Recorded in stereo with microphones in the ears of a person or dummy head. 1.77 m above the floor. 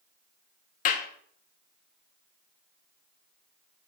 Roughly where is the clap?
Left.